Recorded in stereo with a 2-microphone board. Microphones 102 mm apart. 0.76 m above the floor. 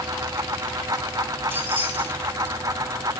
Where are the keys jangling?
20° right (ahead or behind), 4.5 m.